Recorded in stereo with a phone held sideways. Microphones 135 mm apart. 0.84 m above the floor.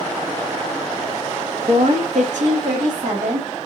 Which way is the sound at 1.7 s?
45° right (ahead or behind).